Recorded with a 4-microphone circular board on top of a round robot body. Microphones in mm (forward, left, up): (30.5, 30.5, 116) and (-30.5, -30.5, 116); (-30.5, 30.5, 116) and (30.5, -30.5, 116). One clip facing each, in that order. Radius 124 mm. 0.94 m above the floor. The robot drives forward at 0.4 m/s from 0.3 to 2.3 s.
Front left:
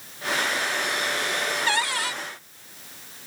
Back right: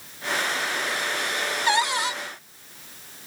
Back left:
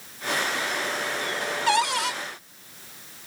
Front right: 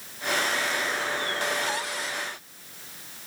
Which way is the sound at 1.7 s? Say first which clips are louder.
Back right 7 dB, back left 8 dB; 155° left.